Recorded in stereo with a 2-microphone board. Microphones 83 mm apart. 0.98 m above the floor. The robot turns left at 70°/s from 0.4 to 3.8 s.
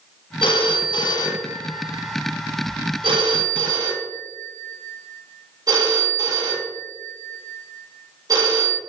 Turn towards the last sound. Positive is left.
turn(degrees=-45)  # may be behind; listen again after turning